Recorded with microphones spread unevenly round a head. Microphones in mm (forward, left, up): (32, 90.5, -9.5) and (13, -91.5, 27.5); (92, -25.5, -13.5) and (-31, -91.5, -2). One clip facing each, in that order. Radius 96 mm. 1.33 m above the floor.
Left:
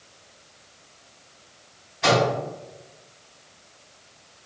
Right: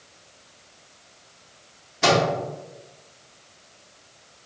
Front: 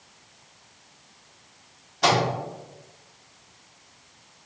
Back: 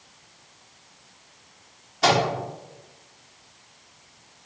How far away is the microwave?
About 1.0 m.